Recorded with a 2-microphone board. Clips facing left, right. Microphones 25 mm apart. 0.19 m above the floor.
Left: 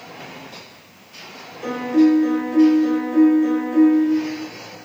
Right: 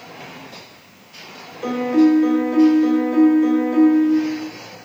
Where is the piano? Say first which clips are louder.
Right 1 dB; 20° right (ahead or behind), 0.9 m.